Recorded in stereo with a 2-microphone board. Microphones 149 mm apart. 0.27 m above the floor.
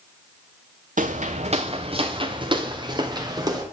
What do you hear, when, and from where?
1.0 s footsteps: 60° right (ahead or behind), 0.8 m; by 3.6 s 25° right (ahead or behind), 2.5 m